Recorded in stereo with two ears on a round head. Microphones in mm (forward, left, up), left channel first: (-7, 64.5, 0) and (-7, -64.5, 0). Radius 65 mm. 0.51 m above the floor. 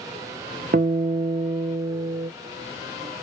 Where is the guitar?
60° right (ahead or behind), 0.6 m.